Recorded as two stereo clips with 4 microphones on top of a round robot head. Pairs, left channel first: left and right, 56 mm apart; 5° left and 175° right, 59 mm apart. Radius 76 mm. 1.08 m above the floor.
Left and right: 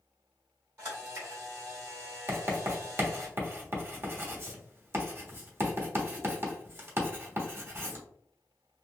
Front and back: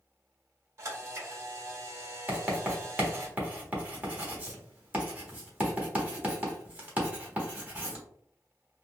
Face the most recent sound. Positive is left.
turn(degrees=-120)